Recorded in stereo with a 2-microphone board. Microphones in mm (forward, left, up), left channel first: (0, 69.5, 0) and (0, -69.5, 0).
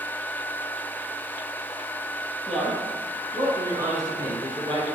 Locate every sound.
2.5 s a man speaking: 5° left (ahead or behind), 1.3 m; by 4.9 s 40° right (ahead or behind), 1.5 m